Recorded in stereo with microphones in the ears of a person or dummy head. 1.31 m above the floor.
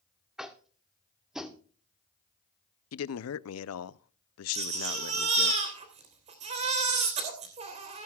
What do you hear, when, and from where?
0.4 s tapping: 5° right (ahead or behind), 1.0 m
2.9 s a man speaking: 75° left (ahead or behind), 0.5 m
4.5 s a baby crying: 35° right (ahead or behind), 3 m